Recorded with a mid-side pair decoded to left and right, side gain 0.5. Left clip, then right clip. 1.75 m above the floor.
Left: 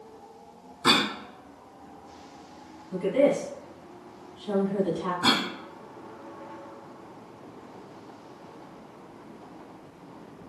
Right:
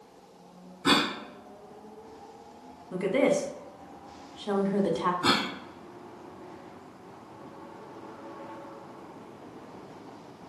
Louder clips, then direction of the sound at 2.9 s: Left 2 dB; 55° right.